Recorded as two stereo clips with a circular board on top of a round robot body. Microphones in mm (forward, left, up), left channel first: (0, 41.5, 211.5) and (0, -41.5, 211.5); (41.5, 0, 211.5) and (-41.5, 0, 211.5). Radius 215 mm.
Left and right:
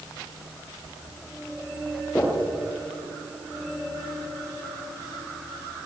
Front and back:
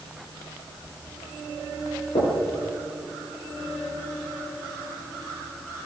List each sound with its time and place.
2.1 s knocking: 5° left, 8.5 m